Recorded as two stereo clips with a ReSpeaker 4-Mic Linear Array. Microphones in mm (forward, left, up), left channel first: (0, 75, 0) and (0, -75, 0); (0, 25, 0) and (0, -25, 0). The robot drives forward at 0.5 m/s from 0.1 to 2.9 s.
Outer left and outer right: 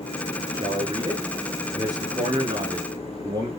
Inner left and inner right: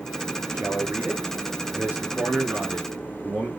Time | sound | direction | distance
0.5 | a man speaking | 35° right (ahead or behind) | 6 m